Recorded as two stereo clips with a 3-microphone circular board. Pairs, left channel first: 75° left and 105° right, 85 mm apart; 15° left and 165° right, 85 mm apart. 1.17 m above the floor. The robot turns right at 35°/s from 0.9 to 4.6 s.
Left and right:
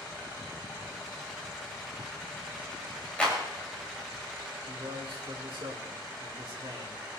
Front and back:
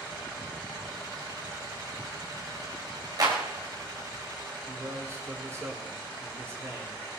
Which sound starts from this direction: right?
A man speaking, at 4.6 s.